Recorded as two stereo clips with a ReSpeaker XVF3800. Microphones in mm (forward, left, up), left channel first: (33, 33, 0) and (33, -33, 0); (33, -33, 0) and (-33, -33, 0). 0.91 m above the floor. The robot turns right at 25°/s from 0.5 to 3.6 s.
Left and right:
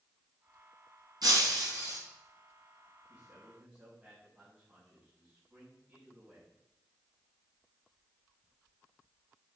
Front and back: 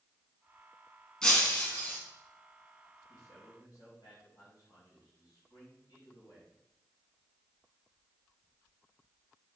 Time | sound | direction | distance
1.2 | breaking glass | 80° right | 3 m
3.1 | a man speaking | 25° right | 5.5 m